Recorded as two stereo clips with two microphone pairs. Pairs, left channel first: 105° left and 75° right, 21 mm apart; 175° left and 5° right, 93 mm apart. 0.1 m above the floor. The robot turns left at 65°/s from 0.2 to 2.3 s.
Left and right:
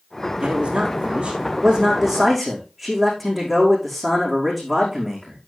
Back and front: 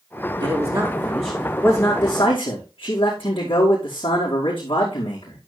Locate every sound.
0.4 s a man speaking: 45° right, 5 m; by 5.4 s 170° right, 5 m